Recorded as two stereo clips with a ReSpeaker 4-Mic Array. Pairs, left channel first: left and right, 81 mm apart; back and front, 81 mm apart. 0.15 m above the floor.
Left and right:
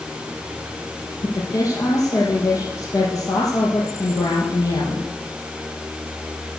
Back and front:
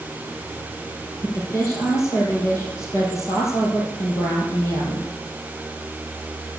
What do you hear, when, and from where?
1.2 s a woman speaking: 130° left, 4.5 m